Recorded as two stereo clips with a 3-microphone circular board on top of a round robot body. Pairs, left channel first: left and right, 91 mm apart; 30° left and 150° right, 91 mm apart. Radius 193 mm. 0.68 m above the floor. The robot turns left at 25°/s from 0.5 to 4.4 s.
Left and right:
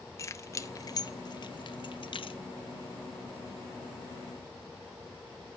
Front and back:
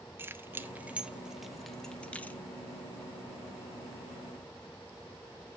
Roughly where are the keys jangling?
Behind left.